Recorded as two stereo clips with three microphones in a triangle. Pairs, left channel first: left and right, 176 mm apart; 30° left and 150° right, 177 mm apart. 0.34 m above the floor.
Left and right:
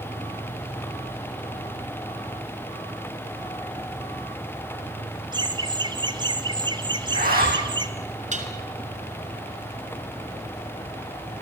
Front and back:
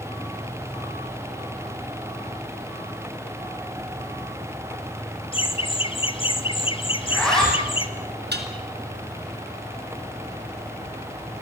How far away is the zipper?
About 9.5 m.